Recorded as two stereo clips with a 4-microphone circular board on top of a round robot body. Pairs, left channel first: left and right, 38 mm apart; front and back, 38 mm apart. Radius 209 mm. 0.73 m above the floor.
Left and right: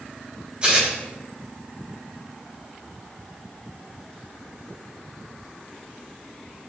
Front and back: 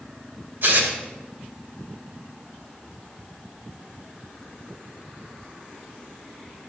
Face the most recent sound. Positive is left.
turn(degrees=-150)